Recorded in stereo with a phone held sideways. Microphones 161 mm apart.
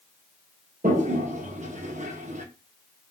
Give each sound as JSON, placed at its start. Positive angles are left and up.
{"t": 0.8, "sound": "a toilet flushing", "side_deg": -45, "distance_m": 0.6}